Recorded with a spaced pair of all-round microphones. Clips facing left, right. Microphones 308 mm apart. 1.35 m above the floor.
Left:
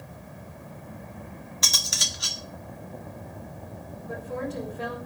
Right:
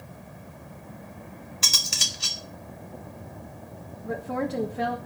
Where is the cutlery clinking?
35° right (ahead or behind), 1.1 m.